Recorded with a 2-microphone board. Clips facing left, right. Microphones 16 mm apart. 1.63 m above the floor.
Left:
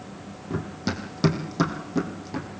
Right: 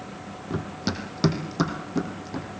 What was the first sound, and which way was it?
Running footsteps, 20° right (ahead or behind).